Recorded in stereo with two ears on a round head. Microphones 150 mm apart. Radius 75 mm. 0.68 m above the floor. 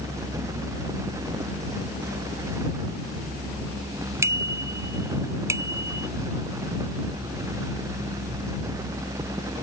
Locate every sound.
4.2 s a bicycle bell: 20° right (ahead or behind)